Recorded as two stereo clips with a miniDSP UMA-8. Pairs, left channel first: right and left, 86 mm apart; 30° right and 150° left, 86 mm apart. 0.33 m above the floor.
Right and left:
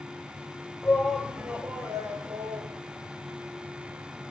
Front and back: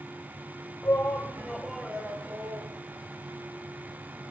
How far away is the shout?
About 1.7 m.